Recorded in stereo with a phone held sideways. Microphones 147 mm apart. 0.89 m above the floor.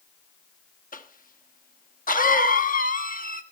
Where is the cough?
70° left (ahead or behind), 1.3 m.